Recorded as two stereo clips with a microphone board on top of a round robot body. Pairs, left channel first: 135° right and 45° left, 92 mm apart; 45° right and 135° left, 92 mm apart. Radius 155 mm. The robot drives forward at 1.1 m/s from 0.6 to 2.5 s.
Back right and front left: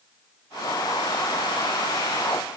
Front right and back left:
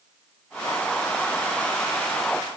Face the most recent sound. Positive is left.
No sound to turn to.